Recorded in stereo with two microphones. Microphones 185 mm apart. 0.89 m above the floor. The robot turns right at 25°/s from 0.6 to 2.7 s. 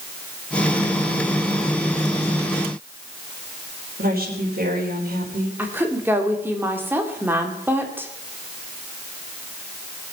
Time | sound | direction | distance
4.0 | a woman speaking | 55° right (ahead or behind) | 4 m
5.6 | a woman speaking | 10° right (ahead or behind) | 2.5 m